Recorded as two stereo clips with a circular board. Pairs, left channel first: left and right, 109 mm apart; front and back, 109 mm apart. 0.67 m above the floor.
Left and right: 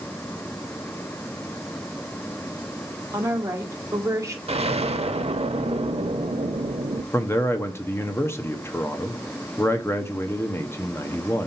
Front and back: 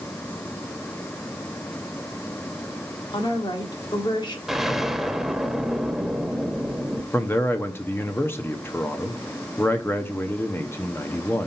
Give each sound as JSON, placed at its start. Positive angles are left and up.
{"t": 3.1, "sound": "a woman speaking", "azimuth_deg": -35, "distance_m": 1.5}
{"t": 4.5, "sound": "an explosion", "azimuth_deg": -95, "distance_m": 0.7}
{"t": 7.1, "sound": "a man speaking", "azimuth_deg": 50, "distance_m": 0.7}